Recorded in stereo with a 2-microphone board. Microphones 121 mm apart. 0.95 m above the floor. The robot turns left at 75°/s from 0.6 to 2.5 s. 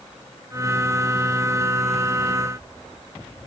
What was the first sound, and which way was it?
Only background noise.